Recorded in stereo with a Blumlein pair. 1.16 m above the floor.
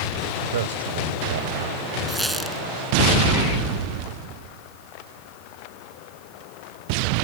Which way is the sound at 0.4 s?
60° right.